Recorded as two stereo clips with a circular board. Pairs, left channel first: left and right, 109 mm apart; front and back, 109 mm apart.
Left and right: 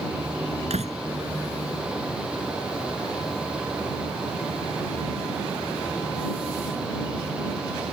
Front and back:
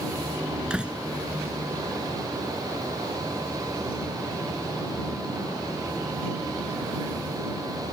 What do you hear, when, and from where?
0.7 s a door slam: 100° right